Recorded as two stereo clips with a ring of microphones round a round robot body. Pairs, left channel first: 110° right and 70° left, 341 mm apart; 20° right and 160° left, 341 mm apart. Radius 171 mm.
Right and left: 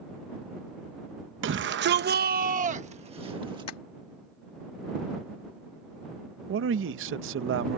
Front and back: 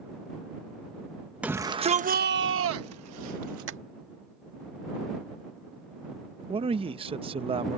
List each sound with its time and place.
1.4 s a shout: 75° left; by 3.7 s 145° left
3.7 s tapping: 150° right
6.5 s a man speaking: 90° left